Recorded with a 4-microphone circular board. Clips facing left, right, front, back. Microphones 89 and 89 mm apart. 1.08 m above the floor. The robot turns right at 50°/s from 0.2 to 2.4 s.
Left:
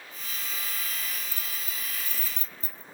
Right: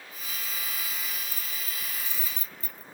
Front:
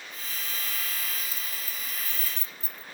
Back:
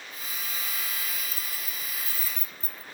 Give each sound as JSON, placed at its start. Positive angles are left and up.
{"t": 1.3, "sound": "keys jangling", "azimuth_deg": 90}